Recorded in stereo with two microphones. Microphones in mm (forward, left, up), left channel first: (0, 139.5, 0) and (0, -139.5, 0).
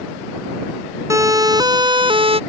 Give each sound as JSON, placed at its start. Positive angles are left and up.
{"t": 1.1, "sound": "a siren", "side_deg": -10}